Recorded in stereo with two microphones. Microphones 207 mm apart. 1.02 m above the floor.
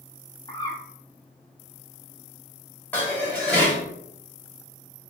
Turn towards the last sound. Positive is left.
turn(degrees=10)  # may be behind; listen again after turning